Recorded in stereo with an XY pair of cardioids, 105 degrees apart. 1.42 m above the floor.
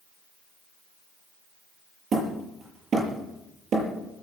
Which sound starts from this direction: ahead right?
Hammering, at 2.1 s.